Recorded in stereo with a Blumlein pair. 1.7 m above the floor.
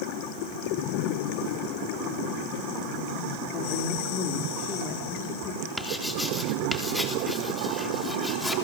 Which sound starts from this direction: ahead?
Writing, at 5.8 s.